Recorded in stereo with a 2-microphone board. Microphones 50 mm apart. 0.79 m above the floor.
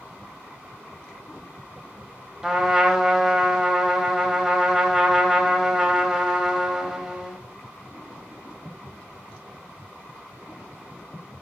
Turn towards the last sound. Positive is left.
turn(degrees=-10)  # may be behind; listen again after turning